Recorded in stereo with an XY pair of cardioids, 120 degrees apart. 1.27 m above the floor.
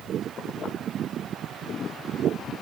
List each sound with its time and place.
Only background noise.